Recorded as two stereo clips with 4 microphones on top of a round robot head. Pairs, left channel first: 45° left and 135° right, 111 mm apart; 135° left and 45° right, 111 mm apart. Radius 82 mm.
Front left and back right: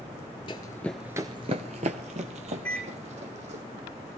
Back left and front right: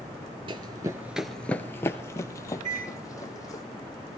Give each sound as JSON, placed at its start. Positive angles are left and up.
{"t": 0.5, "sound": "running footsteps", "azimuth_deg": 0, "distance_m": 0.6}
{"t": 2.6, "sound": "a microwave", "azimuth_deg": -35, "distance_m": 8.0}